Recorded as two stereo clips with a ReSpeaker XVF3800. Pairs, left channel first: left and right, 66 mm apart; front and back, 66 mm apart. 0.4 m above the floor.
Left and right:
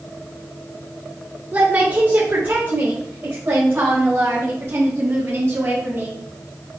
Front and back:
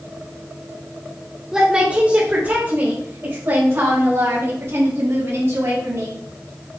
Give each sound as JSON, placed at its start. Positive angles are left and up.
{"t": 1.5, "sound": "a woman speaking", "azimuth_deg": -115, "distance_m": 1.2}